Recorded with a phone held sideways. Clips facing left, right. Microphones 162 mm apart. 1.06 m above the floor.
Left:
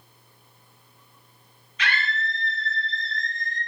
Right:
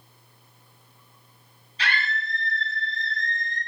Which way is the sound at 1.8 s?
35° right (ahead or behind).